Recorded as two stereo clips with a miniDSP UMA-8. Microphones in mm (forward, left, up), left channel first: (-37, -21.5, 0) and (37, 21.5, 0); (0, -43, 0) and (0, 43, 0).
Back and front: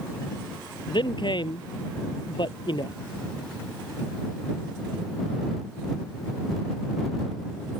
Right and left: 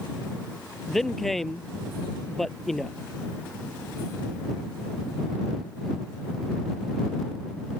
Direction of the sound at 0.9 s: 175° right.